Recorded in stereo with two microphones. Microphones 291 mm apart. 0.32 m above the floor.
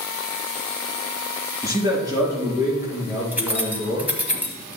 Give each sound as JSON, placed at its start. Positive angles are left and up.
{"t": 1.6, "sound": "a man speaking", "side_deg": -10, "distance_m": 4.0}
{"t": 3.3, "sound": "keys jangling", "side_deg": -5, "distance_m": 1.4}